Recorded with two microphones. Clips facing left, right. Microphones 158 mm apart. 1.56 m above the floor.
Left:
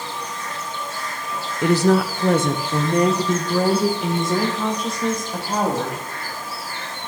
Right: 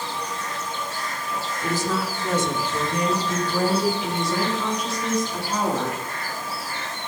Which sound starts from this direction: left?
A woman speaking, at 1.6 s.